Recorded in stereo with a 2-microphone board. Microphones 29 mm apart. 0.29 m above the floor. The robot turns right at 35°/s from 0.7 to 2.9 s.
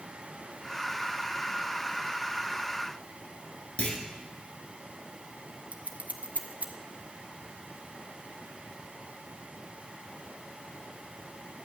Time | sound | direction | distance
3.8 | a clunk | 45° left (ahead or behind) | 2 m
5.7 | scissors | 65° right (ahead or behind) | 1.0 m